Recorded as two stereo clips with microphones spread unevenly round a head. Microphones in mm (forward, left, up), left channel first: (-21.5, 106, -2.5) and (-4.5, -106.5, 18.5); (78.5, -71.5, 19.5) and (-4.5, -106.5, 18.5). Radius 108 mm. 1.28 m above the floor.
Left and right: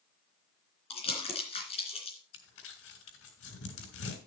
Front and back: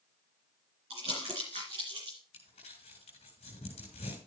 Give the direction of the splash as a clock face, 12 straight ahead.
I don't hear a splash.